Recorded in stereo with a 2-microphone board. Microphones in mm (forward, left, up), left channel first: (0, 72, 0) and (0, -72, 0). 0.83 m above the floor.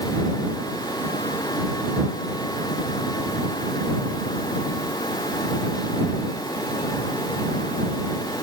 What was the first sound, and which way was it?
Only background noise.